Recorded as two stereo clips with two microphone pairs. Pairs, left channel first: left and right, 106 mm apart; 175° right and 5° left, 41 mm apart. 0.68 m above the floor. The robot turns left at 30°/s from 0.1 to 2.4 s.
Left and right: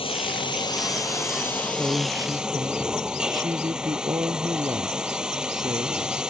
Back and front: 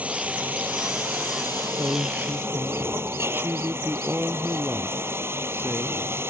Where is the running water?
65° left; by 6.3 s 5° right.